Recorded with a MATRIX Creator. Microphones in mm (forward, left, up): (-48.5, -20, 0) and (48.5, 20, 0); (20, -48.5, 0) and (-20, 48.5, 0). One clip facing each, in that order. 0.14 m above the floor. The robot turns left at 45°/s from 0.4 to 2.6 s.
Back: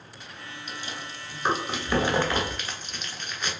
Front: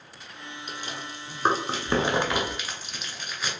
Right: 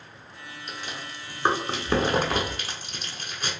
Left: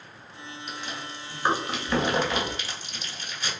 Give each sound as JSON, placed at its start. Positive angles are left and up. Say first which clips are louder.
{"t": 0.7, "sound": "chewing", "louder": "front 1 dB, even", "azimuth_deg": 25, "distance_m": 0.8}